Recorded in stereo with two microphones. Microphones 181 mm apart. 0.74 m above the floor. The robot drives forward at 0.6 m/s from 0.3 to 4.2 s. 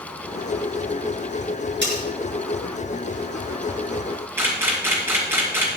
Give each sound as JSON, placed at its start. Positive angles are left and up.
{"t": 1.8, "sound": "cutlery clinking", "side_deg": -90, "distance_m": 6.5}
{"t": 4.4, "sound": "a camera shutter", "side_deg": -15, "distance_m": 4.5}